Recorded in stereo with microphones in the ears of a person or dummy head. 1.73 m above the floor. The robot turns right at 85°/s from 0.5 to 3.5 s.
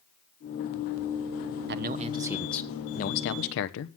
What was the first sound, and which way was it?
A man speaking, 60° right.